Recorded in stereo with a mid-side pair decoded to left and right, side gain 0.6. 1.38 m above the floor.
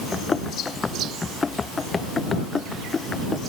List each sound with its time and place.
0.1 s running footsteps: 20° left; by 3.4 s 25° left